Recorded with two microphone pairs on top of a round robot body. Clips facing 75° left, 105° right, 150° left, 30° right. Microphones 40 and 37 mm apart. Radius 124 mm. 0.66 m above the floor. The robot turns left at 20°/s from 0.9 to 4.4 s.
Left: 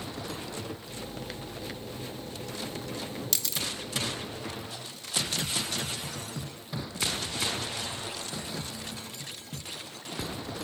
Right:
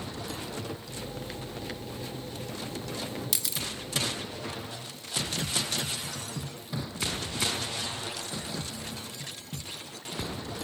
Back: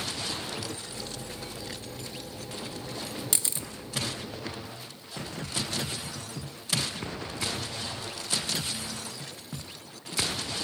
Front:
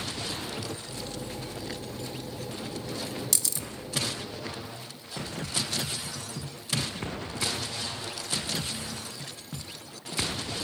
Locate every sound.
3.3 s a camera shutter: 170° right, 0.5 m; by 3.7 s straight behind, 0.5 m